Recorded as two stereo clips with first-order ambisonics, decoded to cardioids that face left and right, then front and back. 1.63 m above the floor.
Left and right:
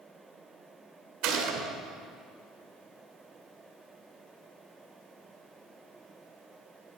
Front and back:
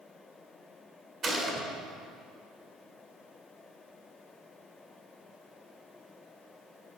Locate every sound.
1.2 s a gunshot: 115° right, 2.5 m